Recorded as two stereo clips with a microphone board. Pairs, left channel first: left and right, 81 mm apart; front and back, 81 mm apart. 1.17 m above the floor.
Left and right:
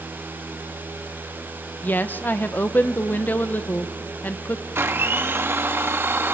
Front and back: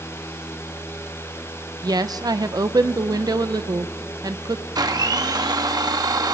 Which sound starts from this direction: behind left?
A woman speaking, at 1.8 s.